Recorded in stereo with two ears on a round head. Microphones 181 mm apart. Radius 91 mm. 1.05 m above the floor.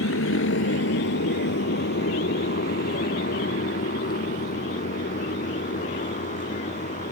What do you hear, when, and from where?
0.0 s a motorcycle: 70° left (ahead or behind); by 7.1 s 40° left (ahead or behind)